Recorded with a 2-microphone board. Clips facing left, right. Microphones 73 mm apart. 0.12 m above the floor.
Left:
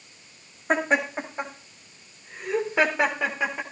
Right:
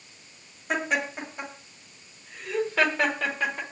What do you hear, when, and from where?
0.7 s laughter: 35° left (ahead or behind), 8 m; by 3.6 s 10° left (ahead or behind), 5 m